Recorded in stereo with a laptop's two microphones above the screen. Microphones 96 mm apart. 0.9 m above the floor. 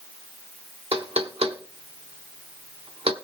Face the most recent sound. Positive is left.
turn(degrees=-75)  # may be behind; listen again after turning